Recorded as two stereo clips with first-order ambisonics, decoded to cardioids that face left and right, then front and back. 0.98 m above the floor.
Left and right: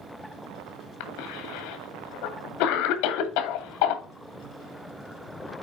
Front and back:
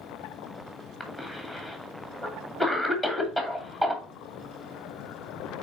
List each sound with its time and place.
1.0 s a cough: 100° left, 2 m